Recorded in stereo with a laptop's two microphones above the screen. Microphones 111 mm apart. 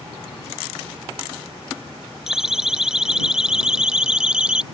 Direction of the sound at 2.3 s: 5° right (ahead or behind).